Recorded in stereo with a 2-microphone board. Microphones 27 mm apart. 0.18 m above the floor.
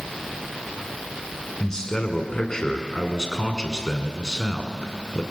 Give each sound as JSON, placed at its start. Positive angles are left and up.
{"t": 1.6, "sound": "a man speaking", "side_deg": 25, "distance_m": 2.0}